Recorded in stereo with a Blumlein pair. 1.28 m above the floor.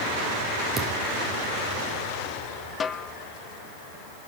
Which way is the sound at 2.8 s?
20° left.